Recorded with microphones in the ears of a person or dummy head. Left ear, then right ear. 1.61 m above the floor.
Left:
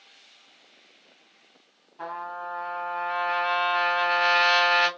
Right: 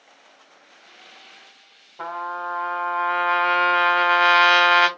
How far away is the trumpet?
About 0.8 m.